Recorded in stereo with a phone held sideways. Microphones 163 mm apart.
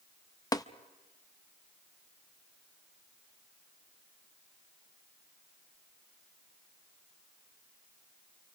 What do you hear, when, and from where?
0.5 s tapping: 25° left (ahead or behind), 0.6 m